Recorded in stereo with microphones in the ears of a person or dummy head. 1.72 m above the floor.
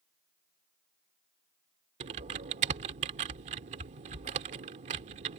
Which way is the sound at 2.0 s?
40° right (ahead or behind).